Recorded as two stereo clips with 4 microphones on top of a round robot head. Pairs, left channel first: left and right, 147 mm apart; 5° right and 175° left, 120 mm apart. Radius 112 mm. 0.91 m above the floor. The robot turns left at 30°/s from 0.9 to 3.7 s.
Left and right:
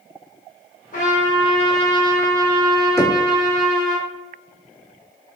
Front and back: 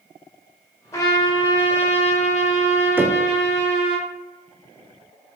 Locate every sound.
0.9 s a trumpet: 55° left, 1.3 m; by 4.0 s 25° right, 1.3 m
3.0 s knocking: 135° left, 0.6 m; by 3.2 s 125° left, 0.6 m